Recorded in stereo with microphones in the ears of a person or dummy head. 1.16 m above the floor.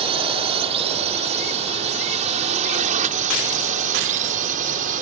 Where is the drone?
30° right (ahead or behind); by 5.0 s 45° right (ahead or behind).